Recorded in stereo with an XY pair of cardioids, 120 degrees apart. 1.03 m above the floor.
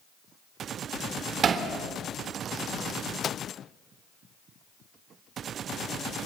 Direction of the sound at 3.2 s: 50° left.